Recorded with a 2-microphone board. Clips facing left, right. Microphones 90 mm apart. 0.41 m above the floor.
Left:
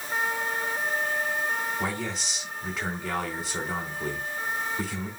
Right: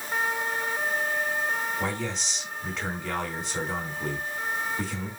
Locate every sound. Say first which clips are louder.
1.8 s a man speaking: even; 5° left (ahead or behind), 3.5 m